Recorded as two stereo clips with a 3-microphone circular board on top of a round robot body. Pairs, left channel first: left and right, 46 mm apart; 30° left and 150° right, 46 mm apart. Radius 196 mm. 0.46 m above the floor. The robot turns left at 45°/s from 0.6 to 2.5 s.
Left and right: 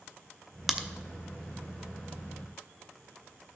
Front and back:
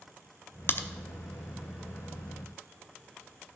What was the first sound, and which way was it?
A crack, 5° right.